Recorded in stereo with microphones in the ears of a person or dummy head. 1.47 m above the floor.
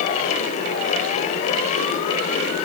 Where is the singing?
I don't hear singing.